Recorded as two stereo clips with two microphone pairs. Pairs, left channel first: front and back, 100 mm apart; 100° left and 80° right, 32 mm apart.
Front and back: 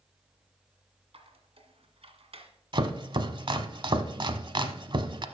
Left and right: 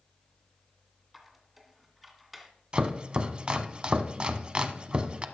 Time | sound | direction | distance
1.1 | a squeak | 165° right | 1.9 m
2.7 | chopping | 140° right | 0.8 m